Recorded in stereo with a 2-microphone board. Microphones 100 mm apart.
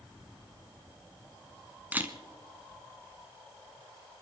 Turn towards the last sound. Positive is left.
turn(degrees=-15)  # may be behind; listen again after turning